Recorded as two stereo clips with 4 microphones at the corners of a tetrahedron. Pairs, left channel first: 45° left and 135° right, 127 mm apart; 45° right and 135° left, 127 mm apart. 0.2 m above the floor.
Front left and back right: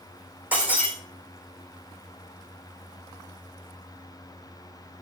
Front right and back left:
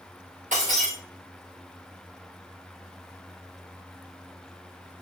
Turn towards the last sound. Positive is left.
turn(degrees=150)